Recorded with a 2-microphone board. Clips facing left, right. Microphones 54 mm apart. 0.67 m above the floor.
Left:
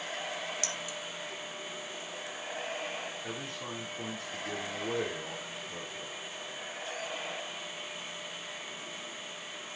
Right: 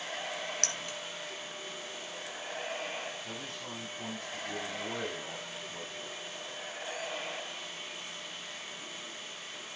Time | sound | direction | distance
0.6 | keys jangling | 55° right (ahead or behind) | 0.8 m
3.2 | a man speaking | 70° left (ahead or behind) | 6.5 m